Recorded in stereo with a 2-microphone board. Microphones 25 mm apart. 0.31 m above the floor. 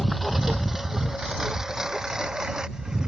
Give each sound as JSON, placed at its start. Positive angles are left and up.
{"t": 0.0, "sound": "a lawn mower", "side_deg": -5}